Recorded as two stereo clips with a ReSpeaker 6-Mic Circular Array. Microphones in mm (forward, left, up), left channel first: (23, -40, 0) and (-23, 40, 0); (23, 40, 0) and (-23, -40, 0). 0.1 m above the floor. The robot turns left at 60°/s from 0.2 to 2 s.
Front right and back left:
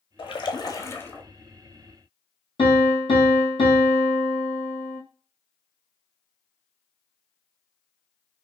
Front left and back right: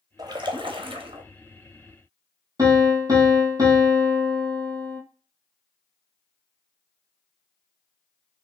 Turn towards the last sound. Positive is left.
turn(degrees=-75)